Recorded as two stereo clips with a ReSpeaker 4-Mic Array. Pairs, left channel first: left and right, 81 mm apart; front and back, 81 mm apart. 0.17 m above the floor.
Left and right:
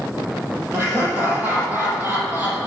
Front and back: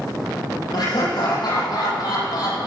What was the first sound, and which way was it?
Laughter, 25° right.